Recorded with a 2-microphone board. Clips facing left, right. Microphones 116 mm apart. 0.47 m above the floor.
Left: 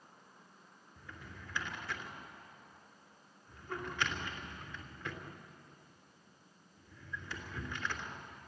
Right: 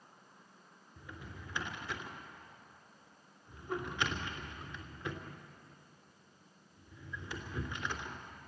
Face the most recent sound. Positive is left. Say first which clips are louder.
# right 2 dB
turn(degrees=-15)  # may be behind; listen again after turning